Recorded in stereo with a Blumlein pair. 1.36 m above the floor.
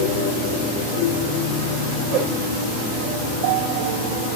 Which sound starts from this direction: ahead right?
A whoosh, at 2.1 s.